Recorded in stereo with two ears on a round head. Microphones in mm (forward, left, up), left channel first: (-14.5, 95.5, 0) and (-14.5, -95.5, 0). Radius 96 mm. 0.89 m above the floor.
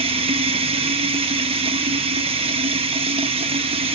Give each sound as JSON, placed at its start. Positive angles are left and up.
{"t": 0.0, "sound": "running water", "side_deg": -25, "distance_m": 0.9}